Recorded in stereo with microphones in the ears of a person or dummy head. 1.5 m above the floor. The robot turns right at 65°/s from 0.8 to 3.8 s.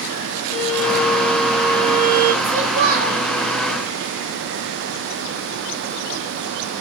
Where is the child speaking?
125° right, 1.0 m; by 3.2 s 75° right, 1.0 m.